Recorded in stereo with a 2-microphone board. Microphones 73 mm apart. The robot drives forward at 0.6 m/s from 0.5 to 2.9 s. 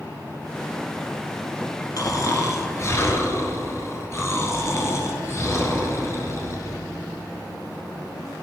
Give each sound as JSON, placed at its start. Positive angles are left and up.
{"t": 2.0, "sound": "snoring", "side_deg": 50, "distance_m": 1.2}